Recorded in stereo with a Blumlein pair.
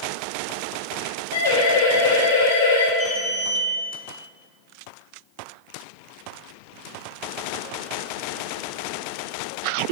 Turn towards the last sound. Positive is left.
turn(degrees=15)